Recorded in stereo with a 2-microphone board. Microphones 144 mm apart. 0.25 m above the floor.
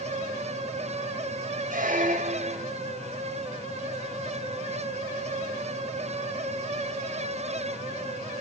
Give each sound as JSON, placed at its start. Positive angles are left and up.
{"t": 1.7, "sound": "a squeak", "side_deg": -70, "distance_m": 1.0}